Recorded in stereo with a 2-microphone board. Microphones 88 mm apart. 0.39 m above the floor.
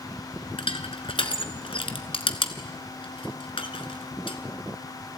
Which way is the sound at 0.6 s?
85° left.